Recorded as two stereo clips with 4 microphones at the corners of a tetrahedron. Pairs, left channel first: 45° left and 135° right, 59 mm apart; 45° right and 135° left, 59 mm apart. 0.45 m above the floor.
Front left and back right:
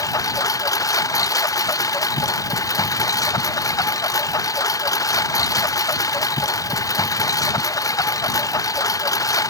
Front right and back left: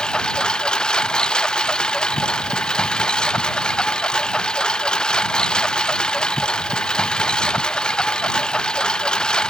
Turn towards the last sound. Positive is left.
turn(degrees=30)